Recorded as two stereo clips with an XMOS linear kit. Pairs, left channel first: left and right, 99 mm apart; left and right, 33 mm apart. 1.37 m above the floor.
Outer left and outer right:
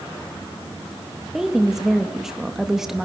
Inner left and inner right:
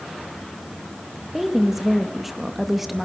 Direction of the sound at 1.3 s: 5° right (ahead or behind).